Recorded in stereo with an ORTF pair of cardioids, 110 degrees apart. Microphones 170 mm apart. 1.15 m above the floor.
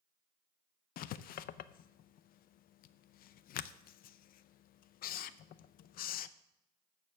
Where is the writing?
60° left, 0.5 m.